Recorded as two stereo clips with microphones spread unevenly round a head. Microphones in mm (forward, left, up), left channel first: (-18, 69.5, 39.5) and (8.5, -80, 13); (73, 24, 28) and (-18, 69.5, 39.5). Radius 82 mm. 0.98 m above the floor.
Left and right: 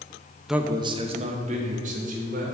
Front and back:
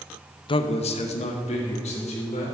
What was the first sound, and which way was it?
A man speaking, 5° left.